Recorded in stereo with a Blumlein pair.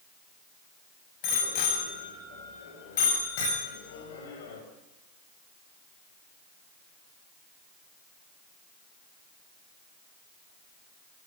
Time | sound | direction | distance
1.2 | a bicycle bell | 45° left | 8 m